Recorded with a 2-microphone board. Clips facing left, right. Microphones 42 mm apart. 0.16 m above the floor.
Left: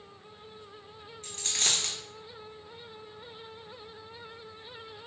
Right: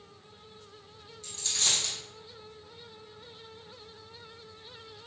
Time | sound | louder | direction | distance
1.2 | a dropped coin | left 1 dB | 45° left (ahead or behind) | 0.7 m